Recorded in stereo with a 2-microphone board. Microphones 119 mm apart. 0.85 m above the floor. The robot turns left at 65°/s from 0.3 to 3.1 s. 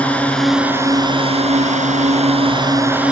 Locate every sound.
0.0 s a drone: 10° left; by 3.1 s 170° right